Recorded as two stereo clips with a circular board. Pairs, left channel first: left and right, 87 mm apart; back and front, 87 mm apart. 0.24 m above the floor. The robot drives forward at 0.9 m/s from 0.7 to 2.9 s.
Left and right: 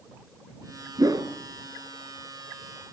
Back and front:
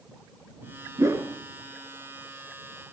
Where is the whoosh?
50° right, 2.5 m; by 1.3 s 55° right, 2 m.